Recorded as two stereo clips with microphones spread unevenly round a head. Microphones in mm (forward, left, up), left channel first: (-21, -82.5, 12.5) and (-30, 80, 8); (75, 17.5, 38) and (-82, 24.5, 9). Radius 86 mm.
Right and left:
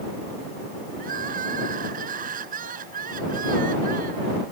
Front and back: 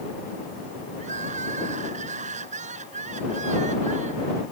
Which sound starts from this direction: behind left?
Crying, at 1.0 s.